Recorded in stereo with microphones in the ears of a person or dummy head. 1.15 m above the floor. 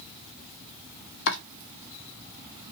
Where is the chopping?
65° left (ahead or behind), 1.2 m.